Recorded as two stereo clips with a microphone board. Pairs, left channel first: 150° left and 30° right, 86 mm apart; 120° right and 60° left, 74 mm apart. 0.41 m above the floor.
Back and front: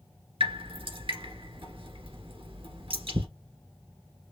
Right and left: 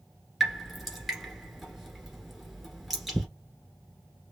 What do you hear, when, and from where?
0.4 s dripping: 25° right, 2 m